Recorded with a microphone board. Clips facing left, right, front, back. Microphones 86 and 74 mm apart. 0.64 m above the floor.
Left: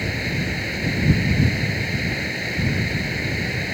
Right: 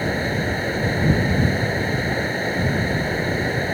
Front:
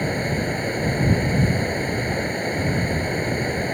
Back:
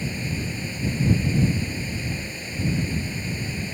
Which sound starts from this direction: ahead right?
Running water, at 0.0 s.